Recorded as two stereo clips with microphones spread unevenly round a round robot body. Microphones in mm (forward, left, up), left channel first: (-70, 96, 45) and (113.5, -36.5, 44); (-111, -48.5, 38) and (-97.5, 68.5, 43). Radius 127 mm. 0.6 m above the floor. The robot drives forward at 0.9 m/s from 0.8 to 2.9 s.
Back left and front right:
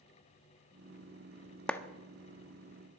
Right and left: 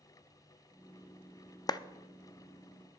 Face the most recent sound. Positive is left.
turn(degrees=-170)